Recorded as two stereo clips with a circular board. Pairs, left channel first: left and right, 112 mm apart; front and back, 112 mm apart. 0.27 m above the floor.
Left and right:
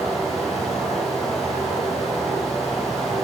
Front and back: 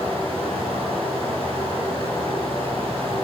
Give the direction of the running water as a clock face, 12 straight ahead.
10 o'clock.